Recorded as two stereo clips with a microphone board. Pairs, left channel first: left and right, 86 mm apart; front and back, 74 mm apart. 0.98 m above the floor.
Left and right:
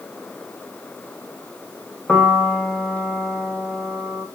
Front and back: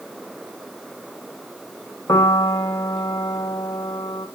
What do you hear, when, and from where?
2.1 s a piano: 10° left, 0.9 m